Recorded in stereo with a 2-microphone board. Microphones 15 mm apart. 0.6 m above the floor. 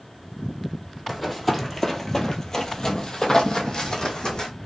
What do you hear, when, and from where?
1.1 s running footsteps: 5° left (ahead or behind), 1.0 m; by 4.5 s 50° left (ahead or behind), 1.5 m